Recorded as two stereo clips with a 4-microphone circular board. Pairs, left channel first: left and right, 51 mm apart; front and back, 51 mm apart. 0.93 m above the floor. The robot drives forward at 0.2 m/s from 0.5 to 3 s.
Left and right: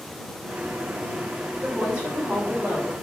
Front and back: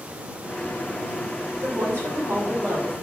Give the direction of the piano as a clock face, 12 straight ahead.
I don't hear a piano.